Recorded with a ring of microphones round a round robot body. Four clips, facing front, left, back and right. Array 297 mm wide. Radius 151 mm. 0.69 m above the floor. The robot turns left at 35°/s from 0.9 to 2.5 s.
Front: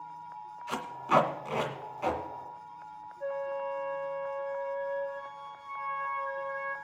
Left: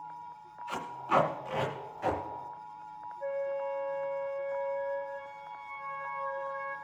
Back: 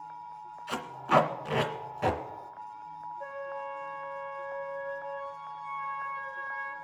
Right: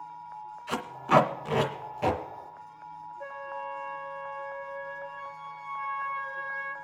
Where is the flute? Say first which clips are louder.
Left 6 dB, front 7 dB; 90° right, 3.5 m.